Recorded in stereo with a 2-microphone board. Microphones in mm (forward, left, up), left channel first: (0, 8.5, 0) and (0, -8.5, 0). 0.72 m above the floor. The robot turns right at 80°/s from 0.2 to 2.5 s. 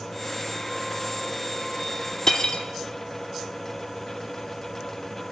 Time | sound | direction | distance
2.3 | cutlery clinking | 35° left (ahead or behind) | 0.9 m